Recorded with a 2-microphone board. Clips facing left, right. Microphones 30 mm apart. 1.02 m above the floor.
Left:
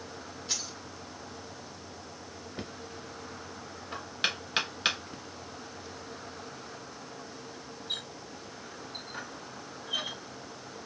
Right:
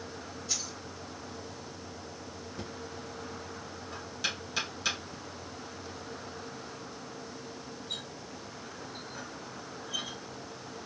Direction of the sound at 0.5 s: 35° left (ahead or behind).